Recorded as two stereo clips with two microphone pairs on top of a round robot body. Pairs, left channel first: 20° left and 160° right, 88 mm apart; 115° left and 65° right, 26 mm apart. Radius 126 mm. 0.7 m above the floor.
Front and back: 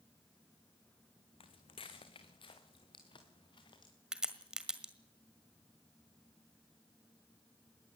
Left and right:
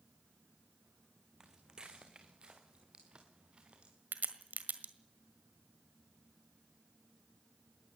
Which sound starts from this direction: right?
A crack, at 4.1 s.